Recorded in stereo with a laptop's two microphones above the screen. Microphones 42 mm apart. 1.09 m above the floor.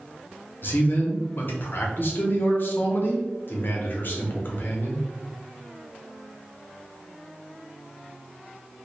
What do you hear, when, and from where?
0.6 s a man speaking: 55° left (ahead or behind), 0.5 m